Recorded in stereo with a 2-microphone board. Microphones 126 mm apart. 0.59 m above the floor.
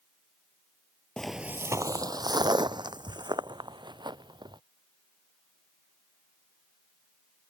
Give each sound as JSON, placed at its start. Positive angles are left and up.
{"t": 1.2, "sound": "footsteps", "side_deg": 5}